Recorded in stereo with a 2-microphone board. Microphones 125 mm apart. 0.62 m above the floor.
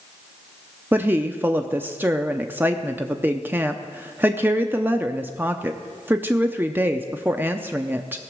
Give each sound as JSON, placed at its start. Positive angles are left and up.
{"t": 0.9, "sound": "a woman speaking", "side_deg": -15, "distance_m": 0.5}